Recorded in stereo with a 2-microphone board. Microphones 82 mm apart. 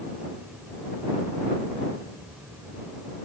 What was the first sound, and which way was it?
Only background noise.